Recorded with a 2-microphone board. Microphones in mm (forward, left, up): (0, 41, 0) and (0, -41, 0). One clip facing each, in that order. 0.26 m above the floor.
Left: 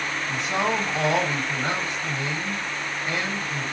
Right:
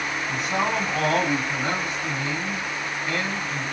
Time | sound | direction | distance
0.3 | a man speaking | 20° left (ahead or behind) | 1.6 m